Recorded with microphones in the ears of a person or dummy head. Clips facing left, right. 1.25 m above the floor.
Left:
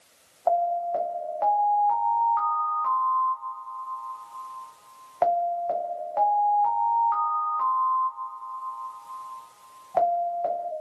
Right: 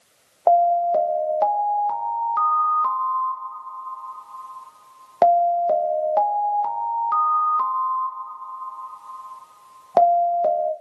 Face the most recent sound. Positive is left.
turn(degrees=-60)  # may be behind; listen again after turning